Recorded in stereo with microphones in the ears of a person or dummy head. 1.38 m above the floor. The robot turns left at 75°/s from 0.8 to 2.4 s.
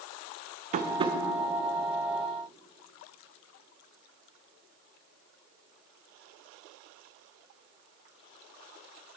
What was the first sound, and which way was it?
Tapping, 35° right (ahead or behind).